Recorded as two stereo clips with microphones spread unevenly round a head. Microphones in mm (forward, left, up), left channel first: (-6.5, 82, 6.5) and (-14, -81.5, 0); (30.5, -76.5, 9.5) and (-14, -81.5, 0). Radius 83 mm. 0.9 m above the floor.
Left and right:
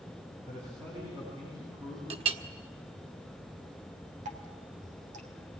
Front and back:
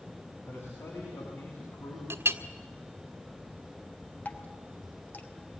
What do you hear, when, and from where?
0.5 s a man speaking: 20° right, 8 m; by 2.0 s 25° right, 7 m
2.1 s a clink: 150° right, 1.6 m
4.2 s dripping: 45° right, 2.5 m